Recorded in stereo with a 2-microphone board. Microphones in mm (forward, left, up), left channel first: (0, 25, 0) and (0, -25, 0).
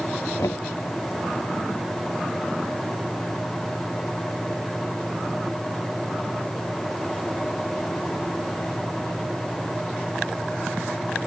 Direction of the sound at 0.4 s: 85° left.